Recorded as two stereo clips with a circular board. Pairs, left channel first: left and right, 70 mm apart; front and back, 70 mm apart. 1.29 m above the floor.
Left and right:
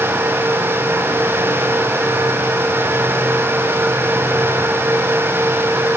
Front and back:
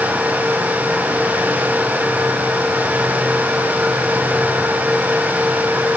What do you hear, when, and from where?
Only background noise.